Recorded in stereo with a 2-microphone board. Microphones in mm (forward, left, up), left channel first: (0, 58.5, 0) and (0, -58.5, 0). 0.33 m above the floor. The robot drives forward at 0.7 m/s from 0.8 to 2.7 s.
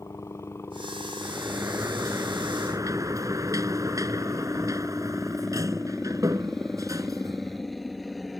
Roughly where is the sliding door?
Right.